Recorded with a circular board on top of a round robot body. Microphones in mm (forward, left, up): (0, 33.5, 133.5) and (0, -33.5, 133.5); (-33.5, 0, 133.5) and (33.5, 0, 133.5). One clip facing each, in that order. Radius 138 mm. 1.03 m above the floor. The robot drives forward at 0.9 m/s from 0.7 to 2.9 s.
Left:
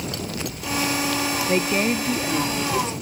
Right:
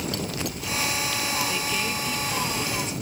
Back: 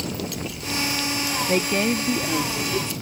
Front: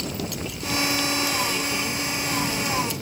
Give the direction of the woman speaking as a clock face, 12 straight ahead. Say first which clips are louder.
Left 7 dB, back 6 dB; 7 o'clock.